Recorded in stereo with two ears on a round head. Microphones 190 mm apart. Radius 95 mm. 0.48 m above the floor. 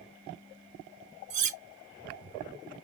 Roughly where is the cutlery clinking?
Right.